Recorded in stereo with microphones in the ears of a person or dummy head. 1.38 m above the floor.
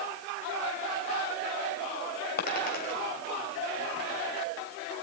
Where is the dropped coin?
50° left (ahead or behind), 3 m.